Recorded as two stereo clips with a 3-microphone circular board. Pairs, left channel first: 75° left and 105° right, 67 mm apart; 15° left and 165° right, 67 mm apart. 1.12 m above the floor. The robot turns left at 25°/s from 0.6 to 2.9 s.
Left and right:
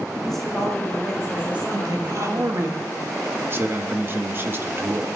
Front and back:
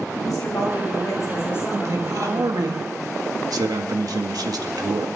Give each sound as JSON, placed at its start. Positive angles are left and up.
{"t": 0.2, "sound": "a woman speaking", "azimuth_deg": -10, "distance_m": 7.5}
{"t": 1.7, "sound": "a man speaking", "azimuth_deg": -130, "distance_m": 1.9}